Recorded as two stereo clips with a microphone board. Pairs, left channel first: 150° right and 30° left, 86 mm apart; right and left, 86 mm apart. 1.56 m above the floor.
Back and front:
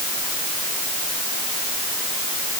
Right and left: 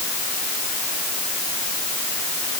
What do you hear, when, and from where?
Only background noise.